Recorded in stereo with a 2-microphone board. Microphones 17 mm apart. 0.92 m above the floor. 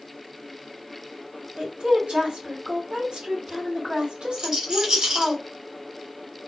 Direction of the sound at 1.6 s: 80° right.